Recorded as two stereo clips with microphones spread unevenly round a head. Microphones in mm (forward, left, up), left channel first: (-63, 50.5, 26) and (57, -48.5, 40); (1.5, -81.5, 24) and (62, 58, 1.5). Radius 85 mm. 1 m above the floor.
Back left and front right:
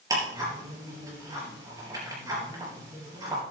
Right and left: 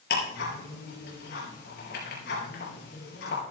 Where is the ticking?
110° right, 5 m.